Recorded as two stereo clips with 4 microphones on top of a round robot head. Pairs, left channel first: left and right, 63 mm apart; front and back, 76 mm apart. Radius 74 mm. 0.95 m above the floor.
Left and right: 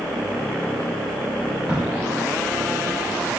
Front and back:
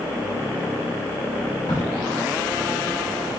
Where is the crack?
15° right, 1.4 m.